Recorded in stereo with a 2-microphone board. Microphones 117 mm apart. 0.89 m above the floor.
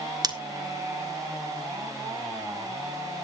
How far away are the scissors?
About 1.0 m.